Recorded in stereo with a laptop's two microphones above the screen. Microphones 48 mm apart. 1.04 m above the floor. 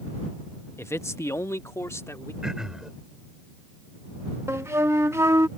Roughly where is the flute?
Right.